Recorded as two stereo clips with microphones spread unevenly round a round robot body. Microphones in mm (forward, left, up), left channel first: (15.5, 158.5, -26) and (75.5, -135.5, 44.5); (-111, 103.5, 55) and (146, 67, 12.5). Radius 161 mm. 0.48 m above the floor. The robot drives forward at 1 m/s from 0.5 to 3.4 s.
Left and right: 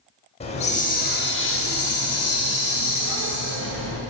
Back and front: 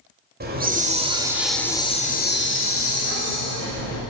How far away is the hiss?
About 1.7 m.